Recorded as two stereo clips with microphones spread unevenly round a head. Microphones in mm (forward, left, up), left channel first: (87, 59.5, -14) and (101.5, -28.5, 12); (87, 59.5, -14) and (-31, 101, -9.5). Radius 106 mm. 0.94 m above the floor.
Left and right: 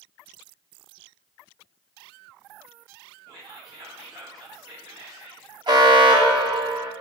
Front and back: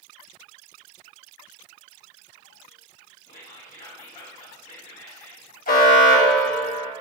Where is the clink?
No clink in this recording.